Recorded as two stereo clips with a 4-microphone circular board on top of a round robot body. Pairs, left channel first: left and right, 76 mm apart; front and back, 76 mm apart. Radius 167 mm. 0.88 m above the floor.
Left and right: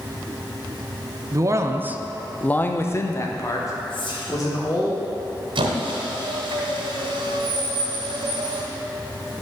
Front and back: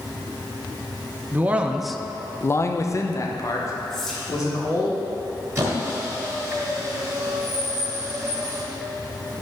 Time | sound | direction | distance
1.3 | a man speaking | 120° right | 0.8 m
3.9 | whispering | 85° left | 2.5 m
5.5 | a squeak | 115° right | 1.2 m